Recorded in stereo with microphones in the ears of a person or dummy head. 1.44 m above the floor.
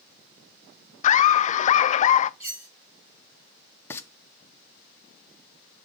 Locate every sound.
1.0 s laughter: 45° left (ahead or behind), 0.5 m
2.4 s cutlery clinking: 10° right (ahead or behind), 3.5 m
3.9 s frying: 10° left (ahead or behind), 0.9 m